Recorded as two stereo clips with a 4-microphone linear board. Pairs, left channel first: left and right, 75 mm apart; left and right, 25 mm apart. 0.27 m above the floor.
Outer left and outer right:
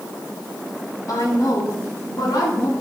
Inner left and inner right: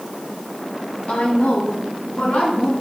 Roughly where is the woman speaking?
Left.